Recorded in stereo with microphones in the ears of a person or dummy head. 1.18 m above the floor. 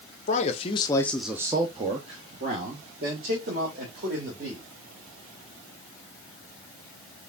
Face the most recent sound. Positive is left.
turn(degrees=-45)  # may be behind; listen again after turning